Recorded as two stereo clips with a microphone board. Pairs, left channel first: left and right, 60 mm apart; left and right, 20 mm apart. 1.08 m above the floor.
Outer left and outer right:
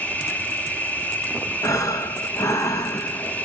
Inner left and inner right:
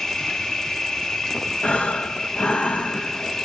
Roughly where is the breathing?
Left.